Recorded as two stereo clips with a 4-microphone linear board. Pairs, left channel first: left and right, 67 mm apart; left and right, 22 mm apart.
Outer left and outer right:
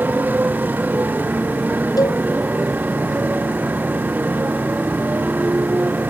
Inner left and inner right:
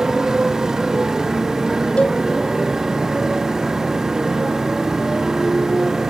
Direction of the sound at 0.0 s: 30° right (ahead or behind).